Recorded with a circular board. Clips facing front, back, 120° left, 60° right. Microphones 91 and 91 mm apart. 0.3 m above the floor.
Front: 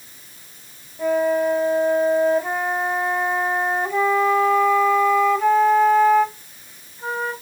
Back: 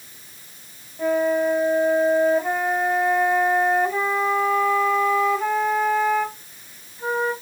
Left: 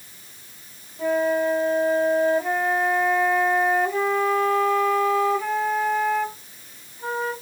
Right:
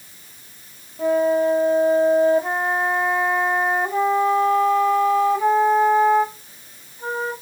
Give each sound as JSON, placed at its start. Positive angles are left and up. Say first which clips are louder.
{"t": 1.0, "sound": "a flute", "louder": "front 1 dB, right 3 dB", "azimuth_deg": -95, "distance_m": 1.4}